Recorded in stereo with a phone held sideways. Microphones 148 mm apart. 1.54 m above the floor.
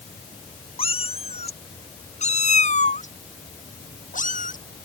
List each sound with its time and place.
0.8 s a cat meowing: 35° left (ahead or behind); by 4.6 s 55° left (ahead or behind)